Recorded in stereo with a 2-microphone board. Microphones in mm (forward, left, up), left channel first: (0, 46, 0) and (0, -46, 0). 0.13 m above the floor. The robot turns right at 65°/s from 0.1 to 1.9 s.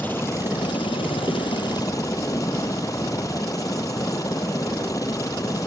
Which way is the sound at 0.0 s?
20° left.